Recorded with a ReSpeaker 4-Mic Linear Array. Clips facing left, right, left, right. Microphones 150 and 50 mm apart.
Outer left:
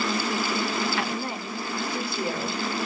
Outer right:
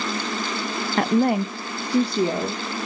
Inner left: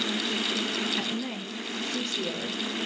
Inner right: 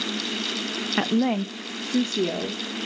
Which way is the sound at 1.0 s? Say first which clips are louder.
Outer right 11 dB, inner right 9 dB; 45° right (ahead or behind).